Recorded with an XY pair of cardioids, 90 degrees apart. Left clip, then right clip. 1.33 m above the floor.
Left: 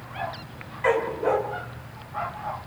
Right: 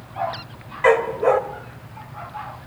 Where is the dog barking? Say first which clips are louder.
Right 6 dB; 65° right, 2.5 m.